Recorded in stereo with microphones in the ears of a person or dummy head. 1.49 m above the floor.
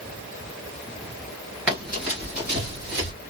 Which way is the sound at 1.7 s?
10° right (ahead or behind).